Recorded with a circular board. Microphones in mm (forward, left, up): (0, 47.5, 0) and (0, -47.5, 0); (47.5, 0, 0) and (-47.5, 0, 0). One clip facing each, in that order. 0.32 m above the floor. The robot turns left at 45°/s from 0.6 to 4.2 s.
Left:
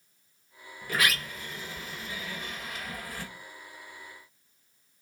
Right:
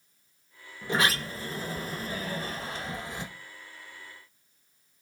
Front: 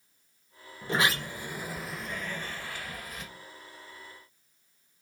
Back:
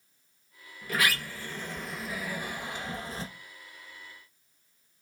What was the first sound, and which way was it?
A sliding door, 35° right.